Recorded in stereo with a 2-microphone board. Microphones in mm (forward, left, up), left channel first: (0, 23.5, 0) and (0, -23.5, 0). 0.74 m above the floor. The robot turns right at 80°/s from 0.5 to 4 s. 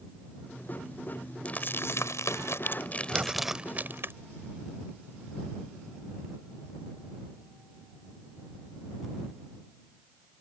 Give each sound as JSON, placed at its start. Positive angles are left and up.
{"t": 1.4, "sound": "crumpling", "side_deg": 30}
{"t": 3.1, "sound": "breathing", "azimuth_deg": -35}